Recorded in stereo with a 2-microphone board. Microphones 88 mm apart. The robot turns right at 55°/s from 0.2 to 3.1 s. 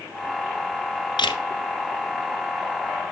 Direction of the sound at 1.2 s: 65° left (ahead or behind).